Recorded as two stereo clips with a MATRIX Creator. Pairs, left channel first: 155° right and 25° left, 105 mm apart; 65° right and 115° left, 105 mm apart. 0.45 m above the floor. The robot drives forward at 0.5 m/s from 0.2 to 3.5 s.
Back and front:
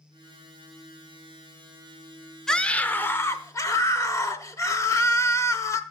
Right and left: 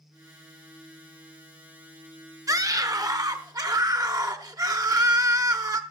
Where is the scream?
125° left, 0.8 m; by 5.8 s 155° left, 1.1 m.